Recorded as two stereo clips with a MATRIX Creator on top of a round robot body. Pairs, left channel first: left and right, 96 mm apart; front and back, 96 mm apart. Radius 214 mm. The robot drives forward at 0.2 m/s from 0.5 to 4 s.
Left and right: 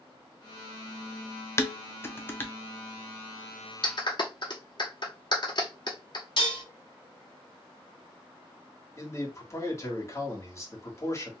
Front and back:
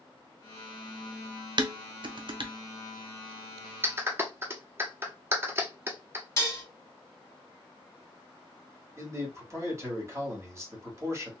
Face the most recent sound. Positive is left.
turn(degrees=135)